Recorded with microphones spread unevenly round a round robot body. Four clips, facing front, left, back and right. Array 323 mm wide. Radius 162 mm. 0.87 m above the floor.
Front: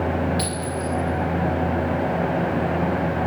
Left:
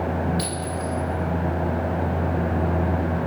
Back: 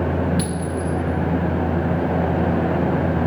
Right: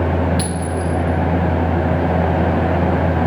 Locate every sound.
0.4 s a clink: 140° right, 0.8 m